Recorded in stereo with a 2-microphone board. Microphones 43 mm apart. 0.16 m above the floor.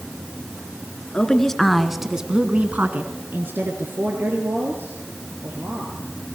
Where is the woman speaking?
20° left (ahead or behind), 2.5 m; by 6.1 s 60° right (ahead or behind), 6 m.